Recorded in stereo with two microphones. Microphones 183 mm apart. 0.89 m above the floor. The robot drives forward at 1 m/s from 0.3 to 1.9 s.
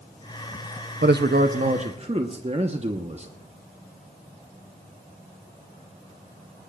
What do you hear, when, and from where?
1.0 s a man speaking: 70° right (ahead or behind), 0.7 m; by 3.3 s 35° right (ahead or behind), 1.1 m